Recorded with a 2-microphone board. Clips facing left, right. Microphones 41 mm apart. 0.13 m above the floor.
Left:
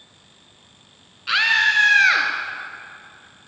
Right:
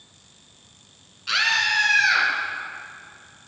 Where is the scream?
20° left (ahead or behind), 1.3 m; by 2.3 s 50° left (ahead or behind), 2 m.